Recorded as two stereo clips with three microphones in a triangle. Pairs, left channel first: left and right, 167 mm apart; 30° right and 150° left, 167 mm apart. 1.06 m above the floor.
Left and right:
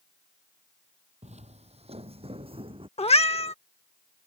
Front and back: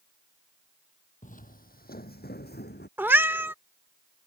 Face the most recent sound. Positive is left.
turn(degrees=80)